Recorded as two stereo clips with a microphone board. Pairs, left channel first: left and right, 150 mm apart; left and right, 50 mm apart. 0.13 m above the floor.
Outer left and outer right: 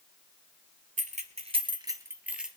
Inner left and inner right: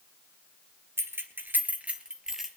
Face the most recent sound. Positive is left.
turn(degrees=-5)  # may be behind; listen again after turning